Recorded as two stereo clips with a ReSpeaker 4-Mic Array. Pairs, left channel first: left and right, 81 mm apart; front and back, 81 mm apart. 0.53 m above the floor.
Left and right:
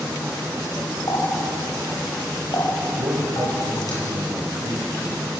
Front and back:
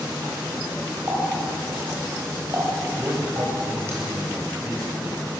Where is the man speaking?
120° right, 3.5 m.